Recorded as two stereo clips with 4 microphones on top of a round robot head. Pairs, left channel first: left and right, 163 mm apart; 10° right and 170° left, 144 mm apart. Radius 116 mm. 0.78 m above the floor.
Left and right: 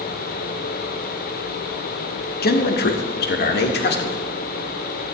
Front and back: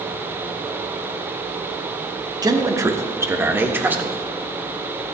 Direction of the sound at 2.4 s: 105° left.